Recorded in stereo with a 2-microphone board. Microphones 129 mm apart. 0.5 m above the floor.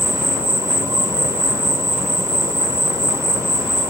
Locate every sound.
0.0 s an insect: 20° right (ahead or behind), 0.9 m